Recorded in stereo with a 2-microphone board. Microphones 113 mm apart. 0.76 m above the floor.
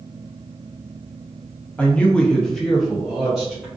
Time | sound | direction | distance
1.8 | a man speaking | 10° left (ahead or behind) | 0.6 m